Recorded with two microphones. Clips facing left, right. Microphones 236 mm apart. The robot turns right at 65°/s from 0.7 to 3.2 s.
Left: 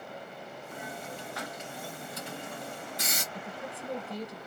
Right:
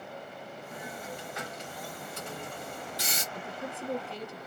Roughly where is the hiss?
Centre.